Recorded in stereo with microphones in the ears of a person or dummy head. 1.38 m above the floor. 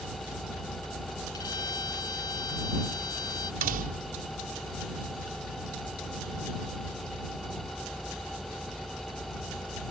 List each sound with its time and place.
0.0 s an engine running: centre (ahead or behind)
1.3 s a violin: 25° left (ahead or behind)
3.6 s a door slam: 45° right (ahead or behind)